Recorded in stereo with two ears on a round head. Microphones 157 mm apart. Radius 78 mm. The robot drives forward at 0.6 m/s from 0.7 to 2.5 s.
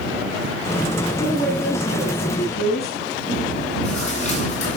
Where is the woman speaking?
45° left (ahead or behind), 7.5 m; by 3.0 s 40° left (ahead or behind), 8 m.